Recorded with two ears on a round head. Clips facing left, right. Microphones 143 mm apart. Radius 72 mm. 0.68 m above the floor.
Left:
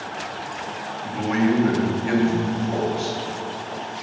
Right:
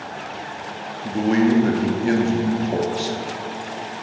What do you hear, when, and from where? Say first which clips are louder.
1.0 s a man speaking: right 4 dB; 40° right (ahead or behind), 0.8 m